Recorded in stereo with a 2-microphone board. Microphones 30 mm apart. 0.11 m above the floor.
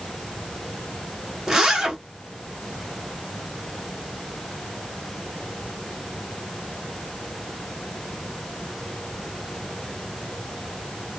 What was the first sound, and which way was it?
A zipper, 20° right (ahead or behind).